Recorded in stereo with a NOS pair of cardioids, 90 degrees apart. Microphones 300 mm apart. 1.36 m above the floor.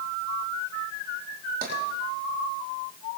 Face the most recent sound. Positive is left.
turn(degrees=-30)